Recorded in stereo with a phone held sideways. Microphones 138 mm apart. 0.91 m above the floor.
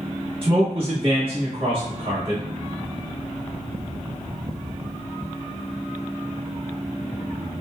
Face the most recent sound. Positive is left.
turn(degrees=-40)  # may be behind; listen again after turning